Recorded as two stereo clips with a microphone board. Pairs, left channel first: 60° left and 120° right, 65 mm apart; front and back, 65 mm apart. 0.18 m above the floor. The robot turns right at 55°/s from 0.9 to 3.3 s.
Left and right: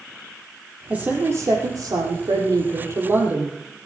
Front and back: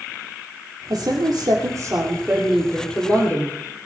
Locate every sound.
0.9 s a woman speaking: 170° left, 5 m; by 3.6 s 60° right, 5 m